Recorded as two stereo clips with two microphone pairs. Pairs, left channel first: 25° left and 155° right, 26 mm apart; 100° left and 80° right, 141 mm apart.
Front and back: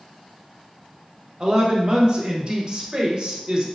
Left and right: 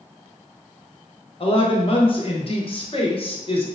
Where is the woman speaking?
150° left, 0.8 m.